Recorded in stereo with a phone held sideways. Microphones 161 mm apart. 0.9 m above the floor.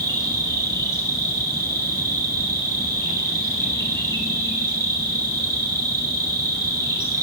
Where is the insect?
15° left (ahead or behind), 7.5 m.